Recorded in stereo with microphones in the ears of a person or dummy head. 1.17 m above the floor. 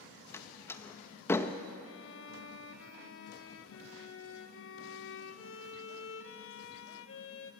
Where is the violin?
65° left (ahead or behind), 1.1 m.